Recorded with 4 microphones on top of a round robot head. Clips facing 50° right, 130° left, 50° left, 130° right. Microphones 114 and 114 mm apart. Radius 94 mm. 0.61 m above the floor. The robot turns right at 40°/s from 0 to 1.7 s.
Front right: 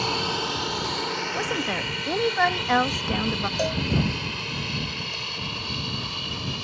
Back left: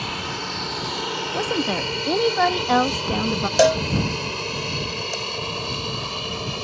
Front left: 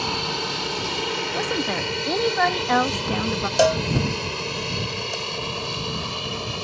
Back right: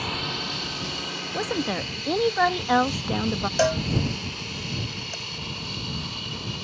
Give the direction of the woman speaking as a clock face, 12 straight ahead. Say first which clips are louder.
Back left 7 dB, back right 1 dB; 7 o'clock.